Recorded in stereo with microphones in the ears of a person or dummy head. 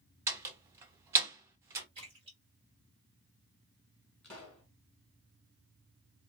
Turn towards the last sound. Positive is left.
turn(degrees=5)  # may be behind; listen again after turning